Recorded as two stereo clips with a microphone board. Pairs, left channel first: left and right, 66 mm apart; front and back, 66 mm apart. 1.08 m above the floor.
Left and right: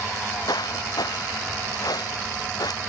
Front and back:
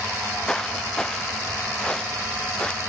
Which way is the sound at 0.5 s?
80° left.